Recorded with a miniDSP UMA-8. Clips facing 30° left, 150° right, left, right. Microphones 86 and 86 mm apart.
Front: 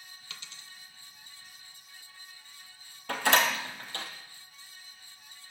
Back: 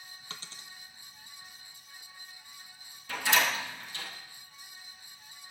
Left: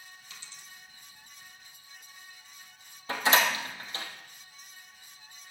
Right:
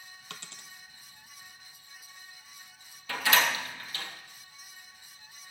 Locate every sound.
0.3 s a dropped coin: 100° right, 1.0 m
3.1 s a door slam: 35° left, 3.5 m